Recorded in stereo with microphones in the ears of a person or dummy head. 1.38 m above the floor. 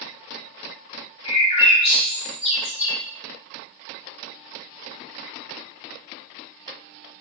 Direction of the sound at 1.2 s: 30° left (ahead or behind).